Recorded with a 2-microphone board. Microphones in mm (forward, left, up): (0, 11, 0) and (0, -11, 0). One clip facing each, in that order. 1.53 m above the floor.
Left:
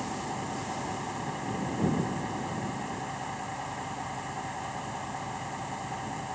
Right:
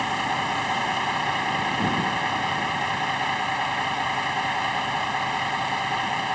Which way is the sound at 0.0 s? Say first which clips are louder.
Right 10 dB; 80° right.